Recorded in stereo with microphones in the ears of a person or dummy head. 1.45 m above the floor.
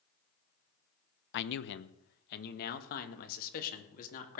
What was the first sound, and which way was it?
A man speaking, 70° left (ahead or behind).